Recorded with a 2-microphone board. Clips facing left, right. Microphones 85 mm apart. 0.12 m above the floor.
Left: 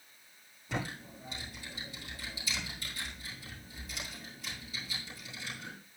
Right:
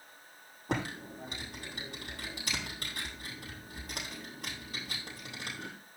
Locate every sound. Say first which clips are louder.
0.7 s typing on a keyboard: right 3 dB; 60° right (ahead or behind), 5.5 m